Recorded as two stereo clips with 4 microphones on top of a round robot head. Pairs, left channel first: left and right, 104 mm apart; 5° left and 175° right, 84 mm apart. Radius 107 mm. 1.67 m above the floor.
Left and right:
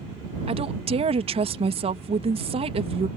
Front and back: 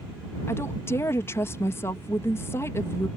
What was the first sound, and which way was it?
A woman speaking, 60° right.